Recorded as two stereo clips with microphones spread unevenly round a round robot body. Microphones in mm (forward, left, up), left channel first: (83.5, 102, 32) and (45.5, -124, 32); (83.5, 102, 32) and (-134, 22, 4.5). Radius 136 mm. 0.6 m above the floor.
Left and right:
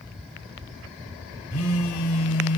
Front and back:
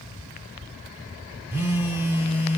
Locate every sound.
1.5 s a phone buzzing: 120° left, 0.9 m